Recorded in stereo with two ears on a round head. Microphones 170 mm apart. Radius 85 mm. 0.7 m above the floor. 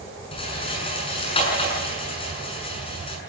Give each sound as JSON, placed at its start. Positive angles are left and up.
{"t": 0.3, "sound": "a rattle", "side_deg": 30, "distance_m": 7.0}